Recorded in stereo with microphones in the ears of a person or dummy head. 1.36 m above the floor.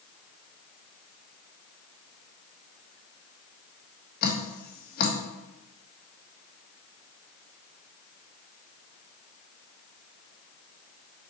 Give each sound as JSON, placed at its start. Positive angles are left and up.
{"t": 4.2, "sound": "dripping", "side_deg": 50, "distance_m": 1.4}